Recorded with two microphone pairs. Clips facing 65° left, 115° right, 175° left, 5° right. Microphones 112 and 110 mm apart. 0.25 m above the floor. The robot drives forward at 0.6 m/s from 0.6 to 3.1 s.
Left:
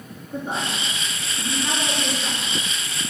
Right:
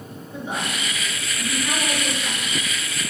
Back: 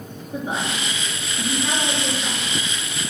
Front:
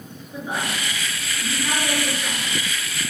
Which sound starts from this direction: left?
A woman speaking, at 0.3 s.